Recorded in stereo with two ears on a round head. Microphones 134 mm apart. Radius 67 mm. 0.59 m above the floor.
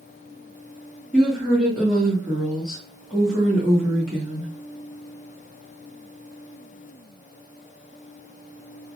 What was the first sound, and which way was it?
A woman speaking, 5° left (ahead or behind).